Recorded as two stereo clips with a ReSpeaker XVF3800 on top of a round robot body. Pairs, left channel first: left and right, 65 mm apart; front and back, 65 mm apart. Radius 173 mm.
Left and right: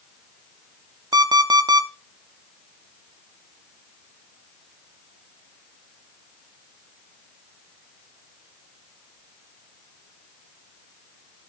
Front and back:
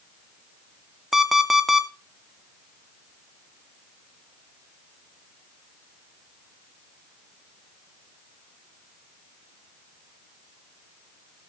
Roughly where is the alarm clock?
Right.